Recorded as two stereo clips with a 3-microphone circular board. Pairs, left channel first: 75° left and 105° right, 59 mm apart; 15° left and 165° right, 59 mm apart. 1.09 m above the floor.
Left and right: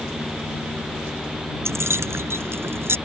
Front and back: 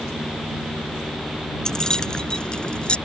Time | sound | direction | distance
1.6 | keys jangling | 65° right | ?